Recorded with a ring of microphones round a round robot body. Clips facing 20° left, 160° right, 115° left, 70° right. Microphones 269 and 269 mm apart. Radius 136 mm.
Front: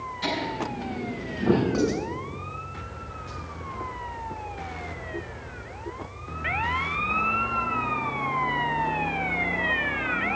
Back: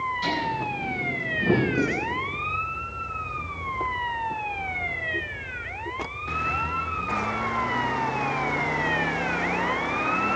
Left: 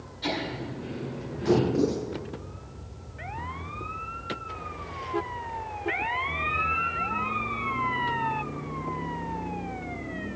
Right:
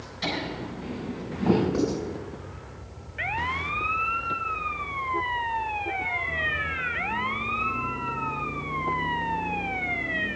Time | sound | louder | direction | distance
0.2 | laughter | front 1 dB, even | 75° right | 7 m
1.7 | writing | front 1 dB, left 1 dB | 5° right | 4.5 m